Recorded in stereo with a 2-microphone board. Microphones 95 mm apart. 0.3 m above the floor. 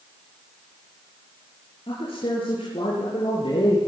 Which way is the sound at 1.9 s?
75° left (ahead or behind).